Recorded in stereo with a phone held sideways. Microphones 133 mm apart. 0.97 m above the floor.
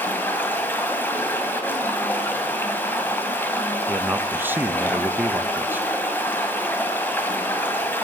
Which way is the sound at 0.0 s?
15° left (ahead or behind).